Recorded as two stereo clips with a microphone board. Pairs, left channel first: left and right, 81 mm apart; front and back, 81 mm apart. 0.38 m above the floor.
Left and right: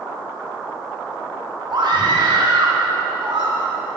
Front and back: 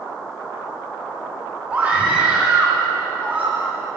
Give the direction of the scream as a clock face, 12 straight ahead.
4 o'clock.